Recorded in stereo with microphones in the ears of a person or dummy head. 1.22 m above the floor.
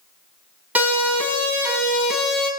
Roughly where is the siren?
Centre.